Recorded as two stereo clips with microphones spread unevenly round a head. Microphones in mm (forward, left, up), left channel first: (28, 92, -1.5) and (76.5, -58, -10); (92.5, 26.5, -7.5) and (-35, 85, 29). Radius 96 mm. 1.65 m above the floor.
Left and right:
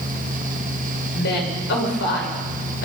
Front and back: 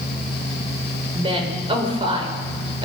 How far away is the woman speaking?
About 7 m.